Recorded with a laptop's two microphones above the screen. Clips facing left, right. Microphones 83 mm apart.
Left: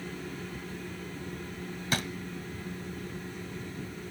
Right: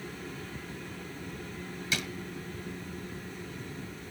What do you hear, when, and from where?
1.9 s a drawer: 45° left (ahead or behind), 1.2 m